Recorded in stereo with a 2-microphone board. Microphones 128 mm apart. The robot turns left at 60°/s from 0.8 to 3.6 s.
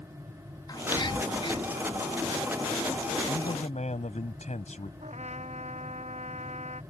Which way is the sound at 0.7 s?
30° left (ahead or behind).